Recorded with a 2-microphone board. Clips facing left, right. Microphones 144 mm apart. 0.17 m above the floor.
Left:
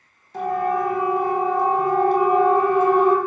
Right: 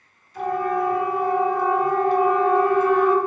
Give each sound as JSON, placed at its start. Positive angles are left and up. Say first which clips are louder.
{"t": 0.3, "sound": "a siren", "louder": "left 1 dB", "side_deg": 65, "distance_m": 7.5}